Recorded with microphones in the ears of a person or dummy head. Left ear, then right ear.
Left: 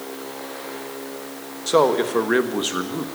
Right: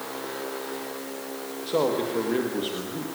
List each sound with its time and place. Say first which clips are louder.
1.7 s a man speaking: left 7 dB; 55° left (ahead or behind), 1.6 m